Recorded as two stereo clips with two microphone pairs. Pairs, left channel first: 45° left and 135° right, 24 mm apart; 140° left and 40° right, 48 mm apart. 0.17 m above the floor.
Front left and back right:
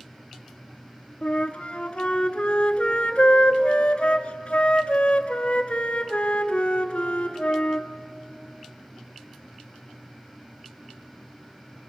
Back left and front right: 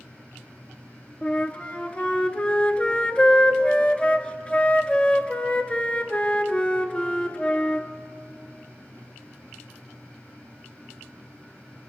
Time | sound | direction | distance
1.2 | a flute | 80° left | 0.8 m